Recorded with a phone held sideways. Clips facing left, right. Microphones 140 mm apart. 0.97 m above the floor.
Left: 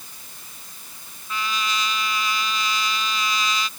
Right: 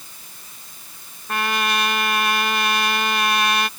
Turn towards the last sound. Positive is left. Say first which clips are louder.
# right 5 dB
turn(degrees=-65)  # may be behind; listen again after turning